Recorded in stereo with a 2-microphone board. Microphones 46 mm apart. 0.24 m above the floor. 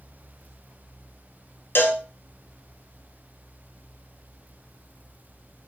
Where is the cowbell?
55° left (ahead or behind), 0.8 m.